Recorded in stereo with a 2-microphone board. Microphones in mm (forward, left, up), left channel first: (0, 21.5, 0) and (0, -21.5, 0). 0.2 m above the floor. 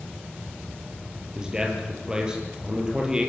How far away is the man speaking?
About 5.5 m.